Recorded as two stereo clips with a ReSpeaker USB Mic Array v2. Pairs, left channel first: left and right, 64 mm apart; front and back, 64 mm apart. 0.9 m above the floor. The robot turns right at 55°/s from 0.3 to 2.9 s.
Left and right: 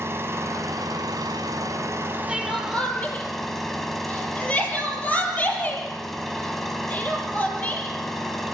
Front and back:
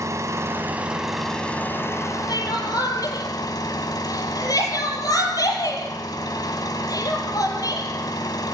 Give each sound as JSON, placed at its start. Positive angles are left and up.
{"t": 0.0, "sound": "an engine running", "azimuth_deg": -140, "distance_m": 2.5}
{"t": 2.3, "sound": "crying", "azimuth_deg": -10, "distance_m": 5.5}